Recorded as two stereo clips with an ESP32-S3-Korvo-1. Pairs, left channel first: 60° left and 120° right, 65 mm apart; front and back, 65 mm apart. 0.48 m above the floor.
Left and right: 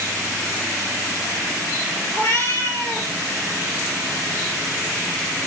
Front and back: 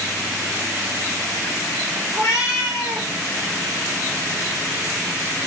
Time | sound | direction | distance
2.1 | a cat meowing | 30° left | 2 m